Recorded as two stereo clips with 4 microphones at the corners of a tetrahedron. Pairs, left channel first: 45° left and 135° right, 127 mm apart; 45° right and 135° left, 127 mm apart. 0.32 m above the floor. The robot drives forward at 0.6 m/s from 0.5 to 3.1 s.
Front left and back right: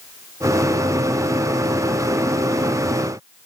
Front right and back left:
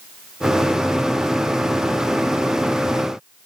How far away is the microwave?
I don't hear a microwave.